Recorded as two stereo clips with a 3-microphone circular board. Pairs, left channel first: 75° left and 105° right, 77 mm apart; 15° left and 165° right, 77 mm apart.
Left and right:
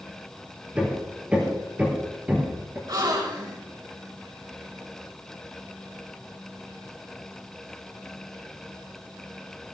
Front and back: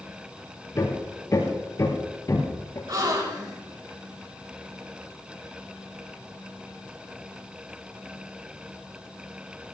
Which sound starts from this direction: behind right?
A gasp, at 2.9 s.